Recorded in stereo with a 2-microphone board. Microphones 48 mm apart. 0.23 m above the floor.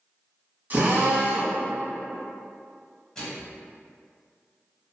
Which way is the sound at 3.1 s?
10° left (ahead or behind).